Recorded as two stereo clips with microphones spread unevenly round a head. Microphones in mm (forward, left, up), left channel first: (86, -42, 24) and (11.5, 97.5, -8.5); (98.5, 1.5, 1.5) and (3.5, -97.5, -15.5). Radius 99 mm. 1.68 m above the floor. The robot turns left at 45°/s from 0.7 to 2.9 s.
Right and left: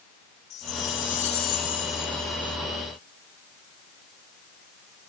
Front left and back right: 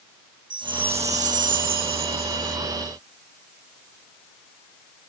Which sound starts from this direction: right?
A chime, at 0.5 s.